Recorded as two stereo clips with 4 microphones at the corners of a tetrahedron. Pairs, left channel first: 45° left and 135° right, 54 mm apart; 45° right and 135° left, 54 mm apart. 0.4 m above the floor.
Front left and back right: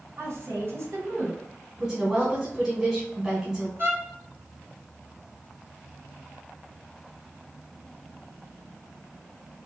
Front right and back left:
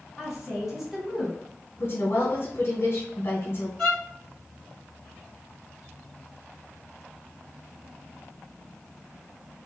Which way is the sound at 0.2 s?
140° right.